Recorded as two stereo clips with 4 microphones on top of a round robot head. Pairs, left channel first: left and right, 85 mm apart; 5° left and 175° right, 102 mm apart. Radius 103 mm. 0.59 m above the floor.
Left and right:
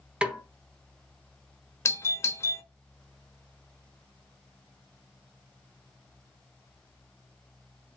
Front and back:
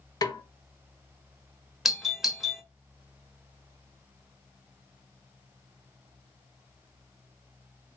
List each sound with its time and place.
0.2 s a snare drum: 20° right, 1.2 m
1.9 s a doorbell: 100° left, 1.2 m